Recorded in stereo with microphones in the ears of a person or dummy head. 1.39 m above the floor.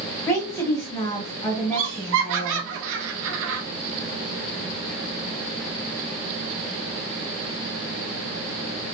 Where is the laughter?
70° right (ahead or behind), 0.8 m.